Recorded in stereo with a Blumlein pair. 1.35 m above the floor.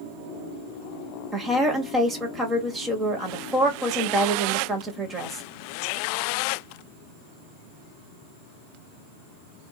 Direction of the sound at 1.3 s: 15° right.